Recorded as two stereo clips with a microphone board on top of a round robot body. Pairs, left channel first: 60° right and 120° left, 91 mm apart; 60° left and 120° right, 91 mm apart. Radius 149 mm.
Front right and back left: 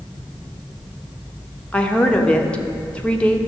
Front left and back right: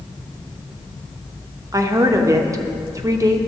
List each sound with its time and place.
1.7 s a woman speaking: 130° right, 1.0 m